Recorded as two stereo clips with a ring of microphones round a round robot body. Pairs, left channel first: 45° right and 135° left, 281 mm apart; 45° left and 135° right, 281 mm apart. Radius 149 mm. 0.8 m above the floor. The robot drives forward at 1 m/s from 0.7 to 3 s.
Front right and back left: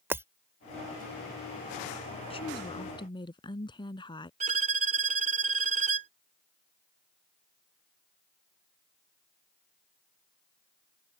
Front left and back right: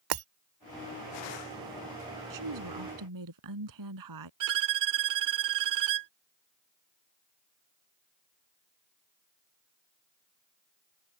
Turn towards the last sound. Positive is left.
turn(degrees=-160)